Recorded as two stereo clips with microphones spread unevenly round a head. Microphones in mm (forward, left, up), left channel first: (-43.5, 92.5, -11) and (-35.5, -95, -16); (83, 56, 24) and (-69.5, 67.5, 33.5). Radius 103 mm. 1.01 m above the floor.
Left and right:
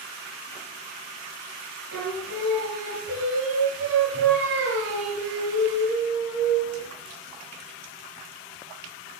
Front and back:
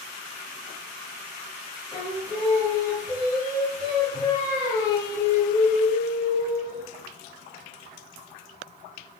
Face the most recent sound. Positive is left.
turn(degrees=-110)